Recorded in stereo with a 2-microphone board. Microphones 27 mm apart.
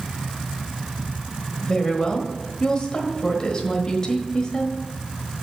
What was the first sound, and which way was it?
A woman speaking, 30° left (ahead or behind).